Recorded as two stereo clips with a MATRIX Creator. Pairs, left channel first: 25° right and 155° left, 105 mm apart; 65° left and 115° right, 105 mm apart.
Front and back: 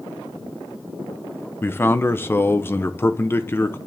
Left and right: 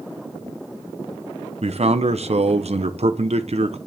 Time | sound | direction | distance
1.6 | a man speaking | 90° right | 0.9 m